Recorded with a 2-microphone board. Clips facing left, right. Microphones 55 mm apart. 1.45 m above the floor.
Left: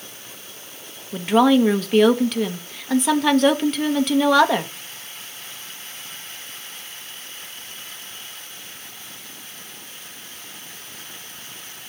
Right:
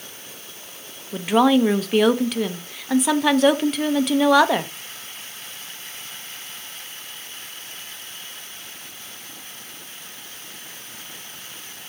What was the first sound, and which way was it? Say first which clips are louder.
A woman speaking: left 1 dB; centre (ahead or behind).